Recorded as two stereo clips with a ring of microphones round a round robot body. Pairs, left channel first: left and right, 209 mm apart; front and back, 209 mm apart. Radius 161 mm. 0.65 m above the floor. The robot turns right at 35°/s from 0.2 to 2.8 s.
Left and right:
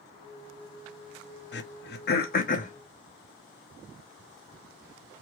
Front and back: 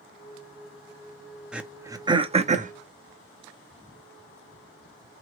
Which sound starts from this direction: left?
Throat clearing, at 1.5 s.